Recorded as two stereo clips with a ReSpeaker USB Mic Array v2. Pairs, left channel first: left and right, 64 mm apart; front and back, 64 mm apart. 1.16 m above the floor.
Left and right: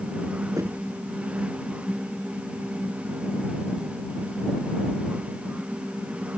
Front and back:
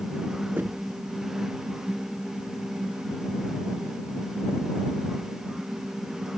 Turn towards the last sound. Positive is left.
turn(degrees=-120)